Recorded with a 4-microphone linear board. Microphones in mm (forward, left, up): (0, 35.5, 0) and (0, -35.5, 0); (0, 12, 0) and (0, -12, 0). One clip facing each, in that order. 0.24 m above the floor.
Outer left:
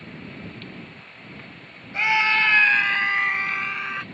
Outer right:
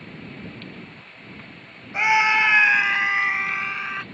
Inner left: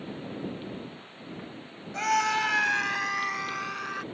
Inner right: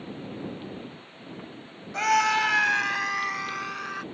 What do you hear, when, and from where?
1.9 s a scream: 15° right (ahead or behind); by 4.0 s centre (ahead or behind)